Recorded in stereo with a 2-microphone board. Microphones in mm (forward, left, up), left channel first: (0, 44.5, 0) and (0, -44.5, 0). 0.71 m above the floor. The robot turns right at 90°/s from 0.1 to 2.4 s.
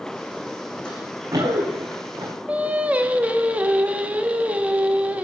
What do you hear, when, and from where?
0.8 s running footsteps: 10° left (ahead or behind), 2.5 m; by 2.3 s 40° right (ahead or behind), 4 m
2.5 s singing: 15° right (ahead or behind), 0.8 m